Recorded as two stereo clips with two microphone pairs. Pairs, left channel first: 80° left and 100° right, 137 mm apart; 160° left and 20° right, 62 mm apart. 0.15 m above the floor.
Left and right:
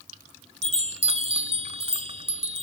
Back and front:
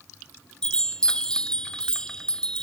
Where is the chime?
120° right, 0.9 m.